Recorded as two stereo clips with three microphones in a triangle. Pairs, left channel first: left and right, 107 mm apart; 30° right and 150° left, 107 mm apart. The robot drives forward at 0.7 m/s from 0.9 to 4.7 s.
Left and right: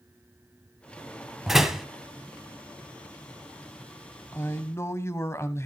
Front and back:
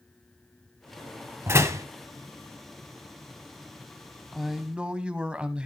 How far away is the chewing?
I don't hear chewing.